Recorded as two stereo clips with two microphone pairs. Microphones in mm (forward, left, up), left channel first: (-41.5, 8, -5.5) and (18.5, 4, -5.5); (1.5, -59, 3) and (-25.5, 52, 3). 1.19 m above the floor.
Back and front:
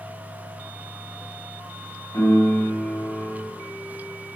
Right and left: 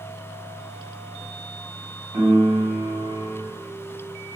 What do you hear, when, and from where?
2.1 s a piano: 160° left, 0.8 m